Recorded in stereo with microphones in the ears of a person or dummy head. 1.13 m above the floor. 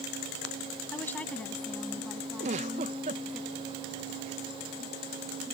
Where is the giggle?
35° right (ahead or behind).